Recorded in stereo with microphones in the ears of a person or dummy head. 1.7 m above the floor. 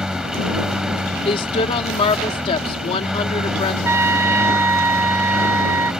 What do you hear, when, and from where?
0.0 s a lawn mower: 5° right (ahead or behind)
1.2 s a woman speaking: 30° left (ahead or behind)
3.8 s a trumpet: 15° right (ahead or behind)